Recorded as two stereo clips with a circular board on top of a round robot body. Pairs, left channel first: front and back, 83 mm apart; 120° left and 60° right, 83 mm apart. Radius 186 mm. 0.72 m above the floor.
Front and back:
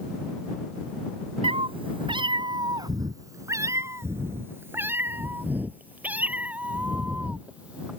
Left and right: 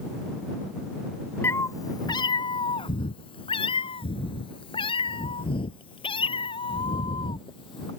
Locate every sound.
1.4 s a cat meowing: 175° right; by 7.9 s 105° left